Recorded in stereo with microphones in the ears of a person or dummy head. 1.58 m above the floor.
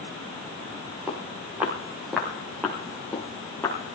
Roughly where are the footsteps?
Centre.